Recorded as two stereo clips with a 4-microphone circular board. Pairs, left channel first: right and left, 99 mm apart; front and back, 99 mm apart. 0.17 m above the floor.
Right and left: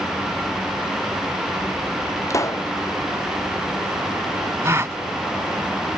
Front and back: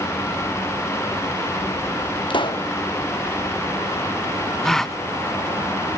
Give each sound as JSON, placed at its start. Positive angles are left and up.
{"t": 2.3, "sound": "a pop", "azimuth_deg": -30}
{"t": 4.6, "sound": "a gasp", "azimuth_deg": 80}